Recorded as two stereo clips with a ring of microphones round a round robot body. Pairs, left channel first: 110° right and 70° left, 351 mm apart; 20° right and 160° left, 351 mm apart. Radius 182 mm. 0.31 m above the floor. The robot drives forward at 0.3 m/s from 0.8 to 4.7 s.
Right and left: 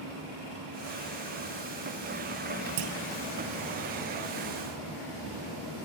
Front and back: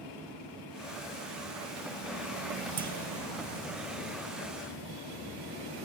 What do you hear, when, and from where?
2.8 s a clunk: 90° left, 2 m; by 2.9 s 95° left, 2 m